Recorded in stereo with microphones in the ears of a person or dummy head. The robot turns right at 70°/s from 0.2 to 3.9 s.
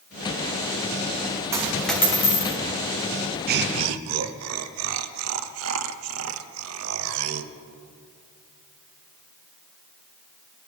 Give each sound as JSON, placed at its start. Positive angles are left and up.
{"t": 1.5, "sound": "a dropped coin", "azimuth_deg": -20, "distance_m": 1.3}
{"t": 3.5, "sound": "laughter", "side_deg": -50, "distance_m": 0.9}